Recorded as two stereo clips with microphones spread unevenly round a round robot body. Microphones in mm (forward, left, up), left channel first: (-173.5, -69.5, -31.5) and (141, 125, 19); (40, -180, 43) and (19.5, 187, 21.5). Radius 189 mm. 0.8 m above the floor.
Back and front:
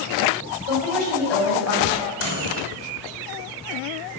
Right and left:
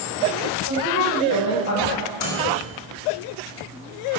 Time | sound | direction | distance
0.7 | a woman speaking | 125° right | 4.5 m
2.2 | a microwave | 95° right | 2.5 m